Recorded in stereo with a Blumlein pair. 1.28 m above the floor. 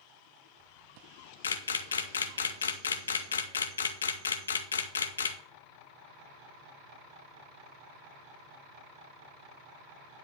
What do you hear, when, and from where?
1.4 s a camera shutter: 70° left, 0.9 m